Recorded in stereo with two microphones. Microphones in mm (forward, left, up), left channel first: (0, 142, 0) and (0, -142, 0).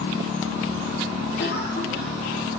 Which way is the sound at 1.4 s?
35° left (ahead or behind).